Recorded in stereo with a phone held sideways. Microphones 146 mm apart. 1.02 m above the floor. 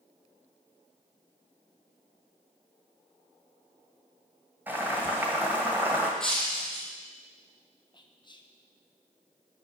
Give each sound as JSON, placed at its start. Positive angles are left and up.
{"t": 4.7, "sound": "boiling", "side_deg": -15, "distance_m": 1.9}
{"t": 6.2, "sound": "breaking glass", "side_deg": 5, "distance_m": 1.7}
{"t": 7.9, "sound": "whispering", "side_deg": 30, "distance_m": 0.7}